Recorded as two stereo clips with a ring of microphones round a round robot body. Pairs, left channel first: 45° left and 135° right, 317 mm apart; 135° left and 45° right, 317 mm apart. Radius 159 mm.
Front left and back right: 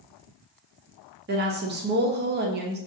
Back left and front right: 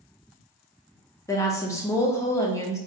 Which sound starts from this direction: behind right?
A woman speaking, at 1.3 s.